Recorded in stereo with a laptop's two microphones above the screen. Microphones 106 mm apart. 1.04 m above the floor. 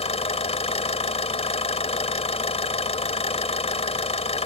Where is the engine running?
75° left (ahead or behind).